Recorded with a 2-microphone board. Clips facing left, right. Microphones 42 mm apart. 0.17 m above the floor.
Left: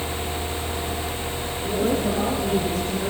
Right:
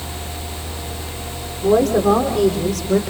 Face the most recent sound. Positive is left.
turn(degrees=-70)  # may be behind; listen again after turning